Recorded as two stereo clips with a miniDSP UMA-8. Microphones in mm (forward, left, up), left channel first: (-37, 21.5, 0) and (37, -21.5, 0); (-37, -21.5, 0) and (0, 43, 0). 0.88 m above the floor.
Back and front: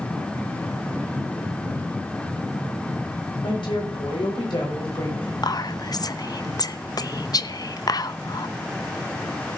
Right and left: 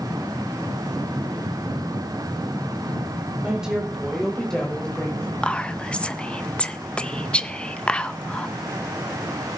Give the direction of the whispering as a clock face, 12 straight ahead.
6 o'clock.